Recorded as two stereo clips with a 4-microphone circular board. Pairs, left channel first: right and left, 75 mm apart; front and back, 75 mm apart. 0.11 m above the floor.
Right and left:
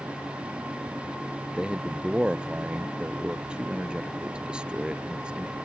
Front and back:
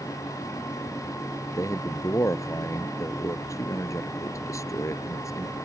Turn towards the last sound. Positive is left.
turn(degrees=15)